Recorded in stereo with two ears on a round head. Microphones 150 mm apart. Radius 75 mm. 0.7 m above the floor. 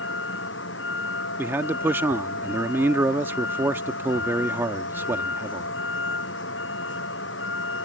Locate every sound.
0.0 s a vehicle: 90° left
1.4 s a man speaking: 15° right (ahead or behind)